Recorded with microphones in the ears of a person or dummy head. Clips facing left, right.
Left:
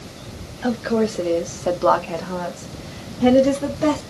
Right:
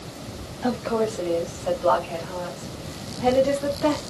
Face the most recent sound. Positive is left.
turn(degrees=65)  # may be behind; listen again after turning